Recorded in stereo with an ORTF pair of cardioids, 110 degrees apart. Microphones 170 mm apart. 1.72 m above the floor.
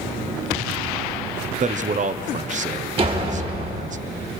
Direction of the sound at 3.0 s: 35° right.